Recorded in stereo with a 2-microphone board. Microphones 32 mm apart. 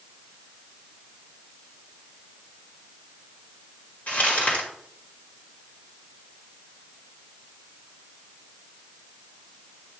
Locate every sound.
4.1 s crumpling: 55° left (ahead or behind), 2.0 m